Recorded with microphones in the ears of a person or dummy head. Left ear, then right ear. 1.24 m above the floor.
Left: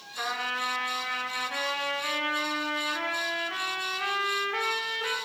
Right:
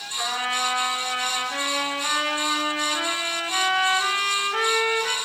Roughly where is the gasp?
I don't hear a gasp.